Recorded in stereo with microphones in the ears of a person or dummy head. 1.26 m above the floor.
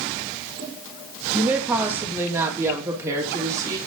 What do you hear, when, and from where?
1.3 s a woman speaking: 10° right (ahead or behind), 2 m; by 3.8 s 20° right (ahead or behind), 3 m